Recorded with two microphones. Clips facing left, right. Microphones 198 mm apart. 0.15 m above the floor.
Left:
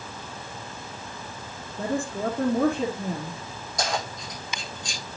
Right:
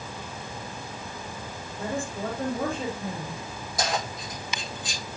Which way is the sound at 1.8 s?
65° left (ahead or behind).